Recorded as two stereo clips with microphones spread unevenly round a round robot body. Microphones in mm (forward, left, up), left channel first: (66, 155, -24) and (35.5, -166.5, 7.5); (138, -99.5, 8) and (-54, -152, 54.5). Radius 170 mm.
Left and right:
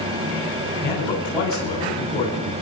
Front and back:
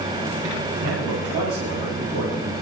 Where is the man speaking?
165° left, 3 m.